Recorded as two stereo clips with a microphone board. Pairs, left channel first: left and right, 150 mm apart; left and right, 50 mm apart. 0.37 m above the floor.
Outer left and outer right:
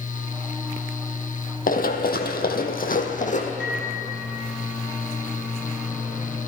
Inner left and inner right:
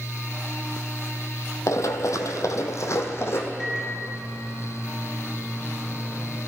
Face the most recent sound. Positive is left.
turn(degrees=5)  # may be behind; listen again after turning